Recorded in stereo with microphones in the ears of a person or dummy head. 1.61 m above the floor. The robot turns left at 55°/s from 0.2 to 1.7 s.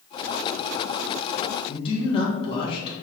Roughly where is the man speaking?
Left.